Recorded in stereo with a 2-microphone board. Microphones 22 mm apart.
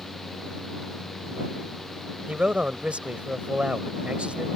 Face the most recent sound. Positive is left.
turn(degrees=-65)  # may be behind; listen again after turning